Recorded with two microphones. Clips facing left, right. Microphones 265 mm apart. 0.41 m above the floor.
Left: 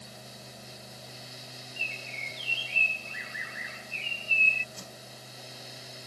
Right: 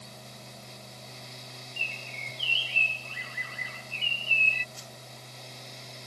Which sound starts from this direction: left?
A whoosh, at 4.8 s.